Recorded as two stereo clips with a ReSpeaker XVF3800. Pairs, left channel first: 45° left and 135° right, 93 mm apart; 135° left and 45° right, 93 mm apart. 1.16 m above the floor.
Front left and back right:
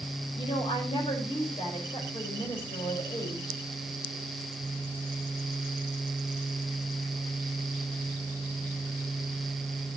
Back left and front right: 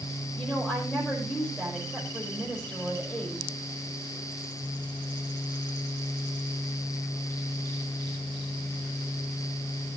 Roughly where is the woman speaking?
Ahead left.